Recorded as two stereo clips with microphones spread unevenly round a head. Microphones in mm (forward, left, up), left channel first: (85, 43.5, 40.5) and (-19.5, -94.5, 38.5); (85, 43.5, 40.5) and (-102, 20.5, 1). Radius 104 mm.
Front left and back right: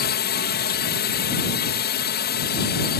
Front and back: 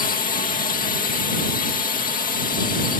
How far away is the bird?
No bird in this recording.